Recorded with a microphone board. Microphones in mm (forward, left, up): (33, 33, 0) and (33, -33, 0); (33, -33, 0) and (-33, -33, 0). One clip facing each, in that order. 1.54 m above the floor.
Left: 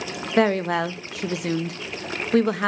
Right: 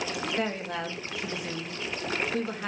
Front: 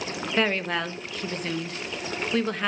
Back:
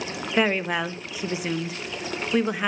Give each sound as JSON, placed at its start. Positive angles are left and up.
{"t": 0.4, "sound": "a woman speaking", "azimuth_deg": 100, "distance_m": 0.9}